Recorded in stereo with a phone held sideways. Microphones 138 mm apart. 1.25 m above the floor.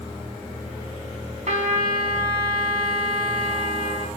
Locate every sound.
1.5 s a trumpet: 60° right (ahead or behind), 3.5 m